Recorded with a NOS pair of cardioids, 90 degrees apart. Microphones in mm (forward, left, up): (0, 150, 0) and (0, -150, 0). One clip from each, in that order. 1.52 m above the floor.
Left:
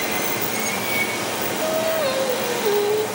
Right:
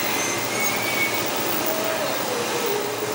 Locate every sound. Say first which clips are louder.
0.0 s running water: even; 5° left, 8.5 m
1.6 s singing: left 3 dB; 40° left, 1.5 m